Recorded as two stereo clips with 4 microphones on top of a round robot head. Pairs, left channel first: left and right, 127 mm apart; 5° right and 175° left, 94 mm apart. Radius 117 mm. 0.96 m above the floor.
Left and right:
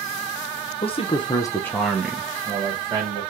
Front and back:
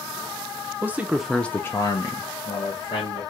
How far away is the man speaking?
About 0.8 m.